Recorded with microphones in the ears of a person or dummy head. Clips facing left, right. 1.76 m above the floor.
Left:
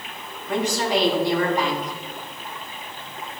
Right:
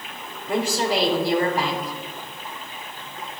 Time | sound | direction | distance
0.5 | a woman speaking | 5° right (ahead or behind) | 2.5 m